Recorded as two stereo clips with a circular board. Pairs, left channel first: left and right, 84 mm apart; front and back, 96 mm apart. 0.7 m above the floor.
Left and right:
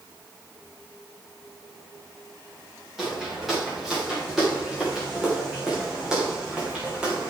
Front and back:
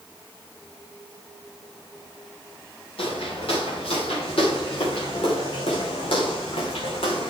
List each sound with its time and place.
3.0 s footsteps: 5° right, 5.5 m; by 7.3 s 15° right, 3 m